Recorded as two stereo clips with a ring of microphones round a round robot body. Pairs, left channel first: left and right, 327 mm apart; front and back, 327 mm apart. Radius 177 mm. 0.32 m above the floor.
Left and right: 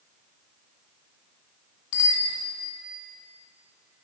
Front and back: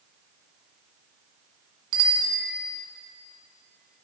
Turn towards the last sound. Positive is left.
turn(degrees=130)